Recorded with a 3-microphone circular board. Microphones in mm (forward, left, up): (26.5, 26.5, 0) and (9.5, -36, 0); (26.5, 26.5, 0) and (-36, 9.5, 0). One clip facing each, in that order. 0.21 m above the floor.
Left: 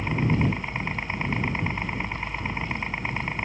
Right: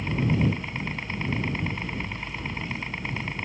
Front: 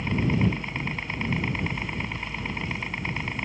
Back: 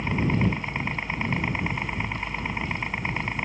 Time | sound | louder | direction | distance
0.0 | a helicopter | left 1 dB, even | 130° left | ?